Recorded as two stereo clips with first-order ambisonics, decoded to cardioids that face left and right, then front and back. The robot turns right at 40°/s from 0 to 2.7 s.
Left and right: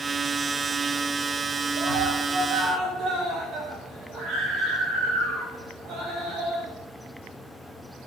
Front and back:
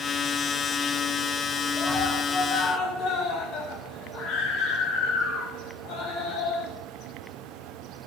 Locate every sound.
1.8 s a scream: 80° right, 7 m; by 6.7 s 40° right, 7 m